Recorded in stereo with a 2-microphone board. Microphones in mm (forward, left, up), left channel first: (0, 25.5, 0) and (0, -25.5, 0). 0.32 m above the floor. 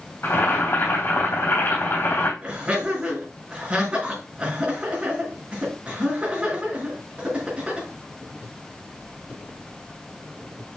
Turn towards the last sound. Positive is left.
turn(degrees=-30)  # may be behind; listen again after turning